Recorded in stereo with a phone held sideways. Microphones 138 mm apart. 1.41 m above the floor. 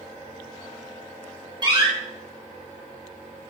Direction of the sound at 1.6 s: 35° right (ahead or behind).